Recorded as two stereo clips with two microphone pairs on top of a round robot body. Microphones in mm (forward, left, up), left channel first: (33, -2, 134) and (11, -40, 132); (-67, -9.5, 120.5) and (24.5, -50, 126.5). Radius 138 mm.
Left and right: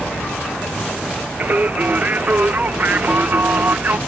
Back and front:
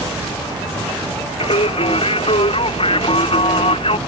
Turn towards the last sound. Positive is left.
turn(degrees=-175)